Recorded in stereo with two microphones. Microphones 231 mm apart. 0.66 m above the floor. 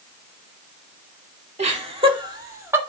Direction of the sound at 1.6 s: 30° right (ahead or behind).